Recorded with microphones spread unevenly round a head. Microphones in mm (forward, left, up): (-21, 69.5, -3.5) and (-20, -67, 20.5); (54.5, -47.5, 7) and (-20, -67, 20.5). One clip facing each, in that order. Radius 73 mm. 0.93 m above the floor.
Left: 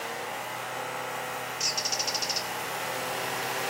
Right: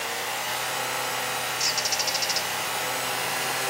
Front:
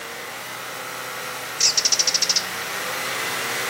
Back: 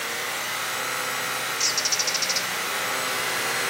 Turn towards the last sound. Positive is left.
turn(degrees=0)